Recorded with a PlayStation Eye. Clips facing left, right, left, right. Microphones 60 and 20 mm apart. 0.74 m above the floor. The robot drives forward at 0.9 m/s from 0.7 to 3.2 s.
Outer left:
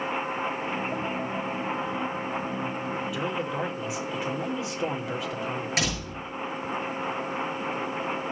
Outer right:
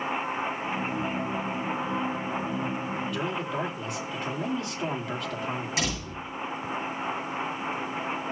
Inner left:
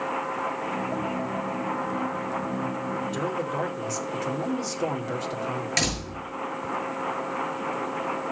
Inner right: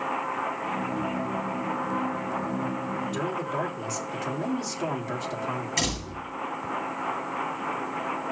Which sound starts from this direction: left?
A door slam, at 5.8 s.